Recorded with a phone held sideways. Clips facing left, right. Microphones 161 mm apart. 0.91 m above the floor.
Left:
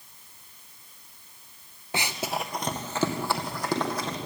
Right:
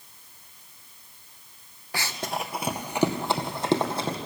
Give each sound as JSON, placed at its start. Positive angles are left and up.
{"t": 1.9, "sound": "running footsteps", "side_deg": 20, "distance_m": 1.1}